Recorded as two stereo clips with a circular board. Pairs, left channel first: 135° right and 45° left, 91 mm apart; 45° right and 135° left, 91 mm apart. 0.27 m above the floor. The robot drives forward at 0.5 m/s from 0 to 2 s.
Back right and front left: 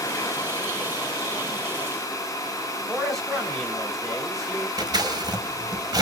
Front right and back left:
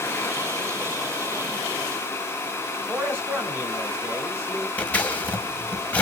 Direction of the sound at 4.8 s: 25° left.